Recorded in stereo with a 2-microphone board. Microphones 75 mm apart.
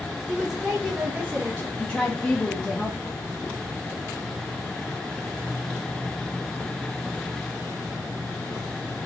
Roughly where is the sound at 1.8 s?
Centre.